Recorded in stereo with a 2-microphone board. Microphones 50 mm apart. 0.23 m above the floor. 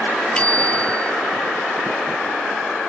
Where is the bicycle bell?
20° left (ahead or behind).